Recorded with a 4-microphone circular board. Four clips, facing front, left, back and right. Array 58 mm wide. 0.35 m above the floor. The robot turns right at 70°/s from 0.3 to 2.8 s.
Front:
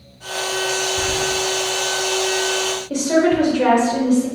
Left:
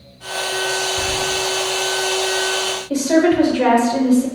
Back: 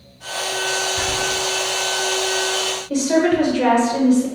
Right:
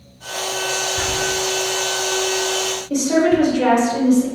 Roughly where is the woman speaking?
Left.